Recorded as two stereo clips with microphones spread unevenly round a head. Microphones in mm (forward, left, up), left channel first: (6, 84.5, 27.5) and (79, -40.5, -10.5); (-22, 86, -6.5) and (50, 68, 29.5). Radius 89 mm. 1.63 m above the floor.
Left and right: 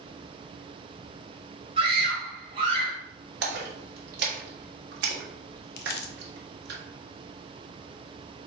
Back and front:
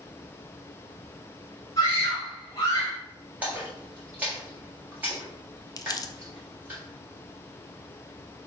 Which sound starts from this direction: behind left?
Crumpling, at 5.8 s.